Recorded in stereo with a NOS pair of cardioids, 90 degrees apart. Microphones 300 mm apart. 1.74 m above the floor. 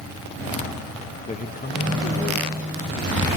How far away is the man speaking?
About 1.9 m.